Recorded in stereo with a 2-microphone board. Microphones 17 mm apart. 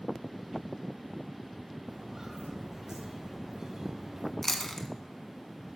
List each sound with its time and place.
1.9 s footsteps: 40° right (ahead or behind), 4.5 m; by 4.3 s 35° right (ahead or behind), 2.5 m
4.4 s chewing: 25° left (ahead or behind), 1.2 m